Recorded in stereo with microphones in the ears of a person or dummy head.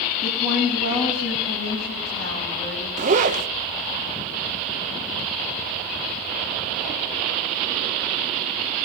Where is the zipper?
45° right (ahead or behind), 0.6 m.